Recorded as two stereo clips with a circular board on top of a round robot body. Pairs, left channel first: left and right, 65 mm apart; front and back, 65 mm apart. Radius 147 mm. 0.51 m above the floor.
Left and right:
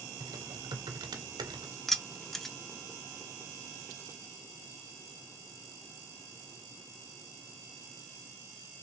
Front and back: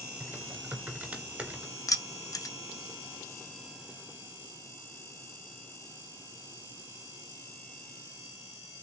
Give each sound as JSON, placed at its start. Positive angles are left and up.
{"t": 0.2, "sound": "typing on a keyboard", "azimuth_deg": -110, "distance_m": 0.6}
{"t": 1.9, "sound": "keys jangling", "azimuth_deg": 5, "distance_m": 0.7}